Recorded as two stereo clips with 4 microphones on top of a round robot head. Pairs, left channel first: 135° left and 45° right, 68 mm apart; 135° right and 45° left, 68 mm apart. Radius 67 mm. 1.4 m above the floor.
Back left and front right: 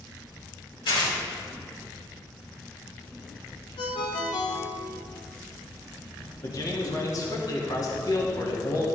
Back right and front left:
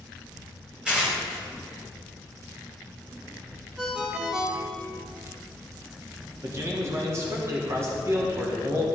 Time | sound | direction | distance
0.8 | tearing paper | 125° left | 4.5 m
3.8 | a ringtone | 130° left | 1.3 m
6.4 | a man speaking | 100° left | 2.0 m